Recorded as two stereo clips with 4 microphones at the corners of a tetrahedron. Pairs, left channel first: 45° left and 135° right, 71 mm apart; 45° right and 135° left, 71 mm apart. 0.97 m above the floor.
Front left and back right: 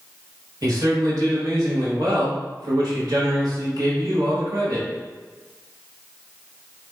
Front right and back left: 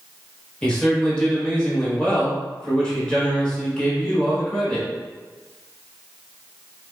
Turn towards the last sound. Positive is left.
turn(degrees=-120)